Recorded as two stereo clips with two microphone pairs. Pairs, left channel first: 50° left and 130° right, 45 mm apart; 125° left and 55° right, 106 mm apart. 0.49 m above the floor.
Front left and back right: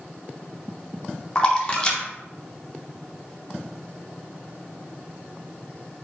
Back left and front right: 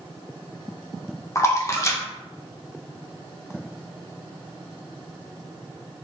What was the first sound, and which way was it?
A splash, 95° left.